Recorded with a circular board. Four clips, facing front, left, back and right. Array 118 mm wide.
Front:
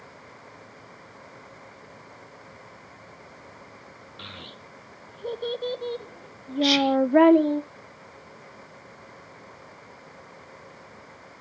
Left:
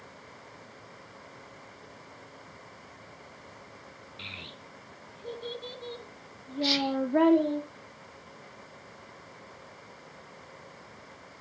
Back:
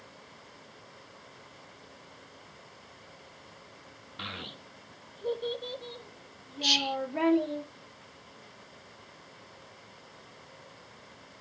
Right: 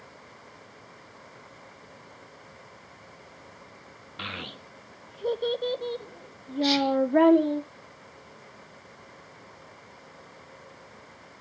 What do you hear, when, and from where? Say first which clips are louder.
4.2 s a child speaking: right 10 dB, back 3 dB; 110° right, 0.9 m; by 7.6 s 10° right, 1.3 m
6.6 s whispering: right 5 dB, front 11 dB; 5° right, 0.7 m